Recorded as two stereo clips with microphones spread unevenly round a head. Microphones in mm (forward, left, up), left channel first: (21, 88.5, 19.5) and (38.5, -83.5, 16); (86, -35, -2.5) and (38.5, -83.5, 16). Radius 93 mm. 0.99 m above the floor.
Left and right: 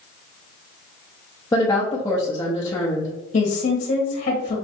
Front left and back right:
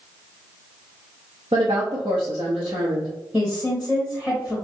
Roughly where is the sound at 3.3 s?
Behind left.